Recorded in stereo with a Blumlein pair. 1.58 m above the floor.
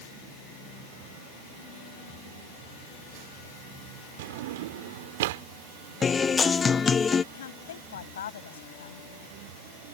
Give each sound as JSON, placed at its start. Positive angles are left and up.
{"t": 4.2, "sound": "a drawer", "azimuth_deg": -55}
{"t": 6.0, "sound": "a guitar", "azimuth_deg": 20}
{"t": 7.3, "sound": "a woman speaking", "azimuth_deg": 60}